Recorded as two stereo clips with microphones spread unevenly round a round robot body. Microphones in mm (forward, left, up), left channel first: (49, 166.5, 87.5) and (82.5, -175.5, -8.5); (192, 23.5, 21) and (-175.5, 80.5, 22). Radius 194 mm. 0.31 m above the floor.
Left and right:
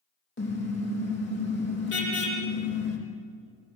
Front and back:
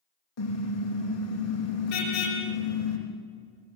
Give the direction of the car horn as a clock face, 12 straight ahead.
11 o'clock.